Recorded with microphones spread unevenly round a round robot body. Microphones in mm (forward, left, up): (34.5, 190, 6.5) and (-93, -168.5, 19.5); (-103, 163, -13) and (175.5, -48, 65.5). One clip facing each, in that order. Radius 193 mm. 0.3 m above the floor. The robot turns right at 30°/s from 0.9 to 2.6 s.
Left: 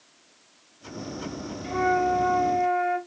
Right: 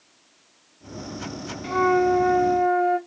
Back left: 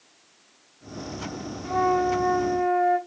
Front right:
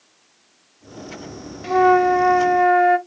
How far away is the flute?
About 0.5 m.